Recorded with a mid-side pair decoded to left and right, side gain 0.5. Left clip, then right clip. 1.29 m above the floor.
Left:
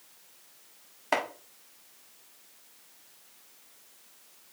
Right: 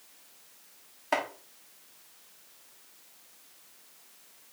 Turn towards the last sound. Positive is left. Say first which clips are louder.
# left 1 dB
turn(degrees=25)